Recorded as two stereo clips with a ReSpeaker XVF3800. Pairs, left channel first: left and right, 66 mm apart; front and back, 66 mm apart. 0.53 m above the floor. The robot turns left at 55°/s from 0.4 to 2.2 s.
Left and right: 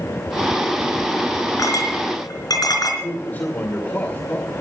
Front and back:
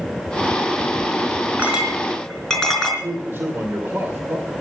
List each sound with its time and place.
1.6 s a clink: 120° left, 4.5 m; by 2.9 s 85° left, 4.5 m
3.0 s a man speaking: 140° left, 2 m